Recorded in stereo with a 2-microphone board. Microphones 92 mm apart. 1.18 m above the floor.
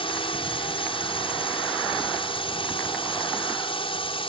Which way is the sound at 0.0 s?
75° left (ahead or behind).